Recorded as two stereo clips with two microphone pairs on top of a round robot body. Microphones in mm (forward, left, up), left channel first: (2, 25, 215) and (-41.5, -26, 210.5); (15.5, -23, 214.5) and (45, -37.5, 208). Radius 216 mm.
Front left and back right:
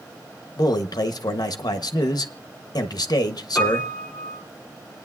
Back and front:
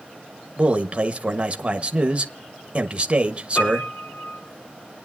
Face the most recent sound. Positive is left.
turn(degrees=125)